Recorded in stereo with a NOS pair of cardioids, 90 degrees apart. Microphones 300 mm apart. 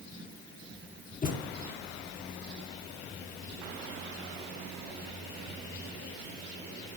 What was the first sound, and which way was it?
A thud, 30° left.